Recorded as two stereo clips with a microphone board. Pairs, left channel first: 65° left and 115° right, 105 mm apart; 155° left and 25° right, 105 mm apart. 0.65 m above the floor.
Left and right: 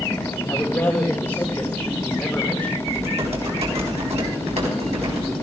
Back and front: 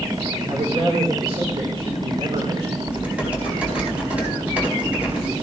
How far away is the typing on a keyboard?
About 4.5 m.